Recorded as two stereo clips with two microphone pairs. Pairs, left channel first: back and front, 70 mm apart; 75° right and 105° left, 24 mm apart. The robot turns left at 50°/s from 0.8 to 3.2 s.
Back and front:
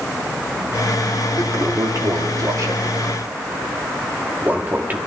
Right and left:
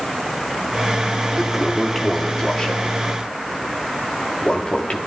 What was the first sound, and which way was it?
A toilet flushing, 30° left.